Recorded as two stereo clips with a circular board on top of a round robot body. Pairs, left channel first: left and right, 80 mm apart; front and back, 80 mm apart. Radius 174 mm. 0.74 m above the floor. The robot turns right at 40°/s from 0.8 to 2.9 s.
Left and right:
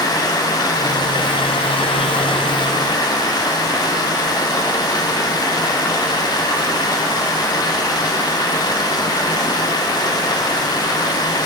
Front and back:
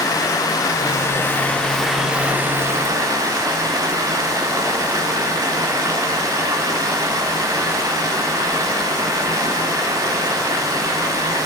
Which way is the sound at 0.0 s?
45° left.